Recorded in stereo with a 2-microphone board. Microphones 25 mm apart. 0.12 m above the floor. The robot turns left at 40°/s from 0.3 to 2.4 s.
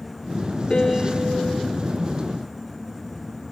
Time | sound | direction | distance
0.7 | a piano | 40° left (ahead or behind) | 2 m